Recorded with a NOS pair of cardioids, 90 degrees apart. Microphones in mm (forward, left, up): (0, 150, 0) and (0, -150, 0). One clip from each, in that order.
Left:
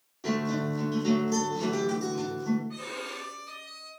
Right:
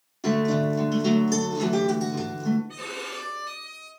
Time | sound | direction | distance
0.2 | a guitar | 55° right | 3 m
2.7 | a violin | 60° right | 3.5 m